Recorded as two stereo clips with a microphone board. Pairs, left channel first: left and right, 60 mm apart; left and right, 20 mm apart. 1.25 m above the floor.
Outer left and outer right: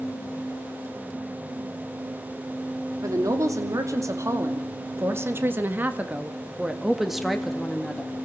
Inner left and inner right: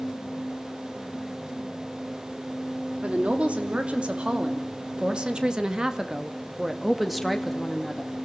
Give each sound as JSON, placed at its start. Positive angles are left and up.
{"t": 3.0, "sound": "a woman speaking", "side_deg": -70, "distance_m": 2.5}